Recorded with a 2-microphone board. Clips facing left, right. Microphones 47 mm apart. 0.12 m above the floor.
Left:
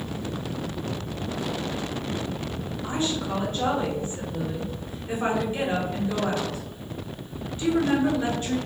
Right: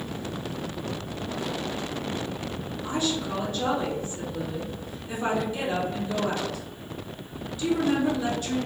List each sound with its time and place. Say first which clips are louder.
2.8 s a woman speaking: even; 35° left (ahead or behind), 1.4 m